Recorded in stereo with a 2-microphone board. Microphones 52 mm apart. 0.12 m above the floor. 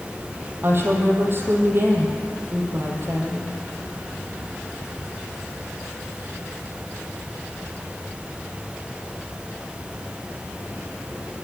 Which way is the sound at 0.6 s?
40° right (ahead or behind).